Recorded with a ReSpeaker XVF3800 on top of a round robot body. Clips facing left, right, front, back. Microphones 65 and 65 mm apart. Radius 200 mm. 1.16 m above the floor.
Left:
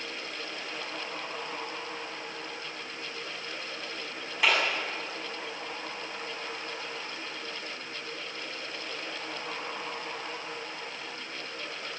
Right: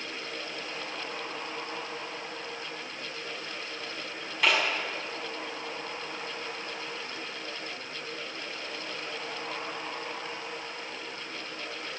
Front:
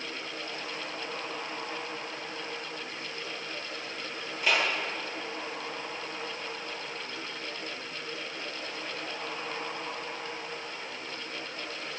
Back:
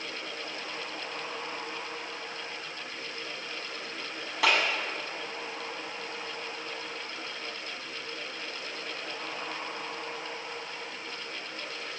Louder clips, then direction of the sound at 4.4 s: Even, back 2 dB; 175° left.